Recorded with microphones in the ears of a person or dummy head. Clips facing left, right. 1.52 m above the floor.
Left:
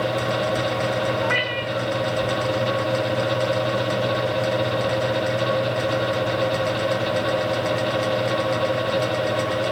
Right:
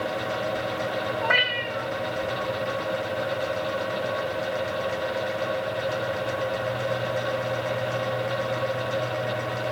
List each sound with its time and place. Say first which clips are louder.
1.2 s a cat meowing: left 4 dB; 55° right (ahead or behind), 2 m